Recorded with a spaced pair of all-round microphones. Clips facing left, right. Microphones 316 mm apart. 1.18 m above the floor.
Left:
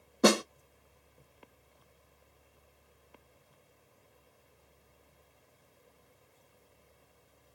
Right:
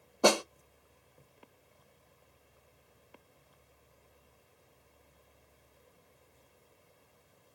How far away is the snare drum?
About 0.5 m.